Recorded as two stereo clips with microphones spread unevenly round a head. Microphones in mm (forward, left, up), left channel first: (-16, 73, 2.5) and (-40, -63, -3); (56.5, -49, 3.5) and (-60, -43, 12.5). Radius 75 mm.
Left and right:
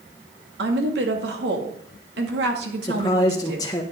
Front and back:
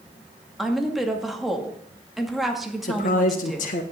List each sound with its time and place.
0.6 s a woman speaking: 95° right, 2 m
2.8 s a man speaking: 10° left, 1.5 m